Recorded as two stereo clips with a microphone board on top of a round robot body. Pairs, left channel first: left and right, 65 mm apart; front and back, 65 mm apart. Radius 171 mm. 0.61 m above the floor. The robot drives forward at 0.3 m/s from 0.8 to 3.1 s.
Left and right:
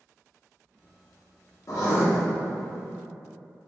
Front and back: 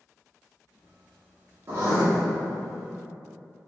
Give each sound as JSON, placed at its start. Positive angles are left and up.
{"t": 1.7, "sound": "writing", "azimuth_deg": 125, "distance_m": 0.7}